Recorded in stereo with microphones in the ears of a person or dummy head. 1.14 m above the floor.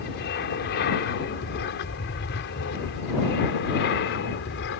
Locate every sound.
0.0 s an aircraft: 55° left (ahead or behind); by 4.8 s 60° left (ahead or behind)